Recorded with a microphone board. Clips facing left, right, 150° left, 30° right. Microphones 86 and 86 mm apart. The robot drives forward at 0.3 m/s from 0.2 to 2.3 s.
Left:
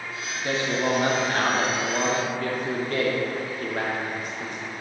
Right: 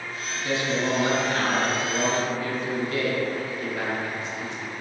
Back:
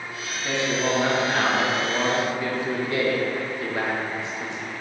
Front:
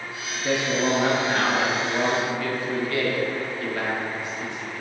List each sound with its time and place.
0.4 s a man speaking: 45° left, 0.9 m; by 4.7 s 85° left, 0.7 m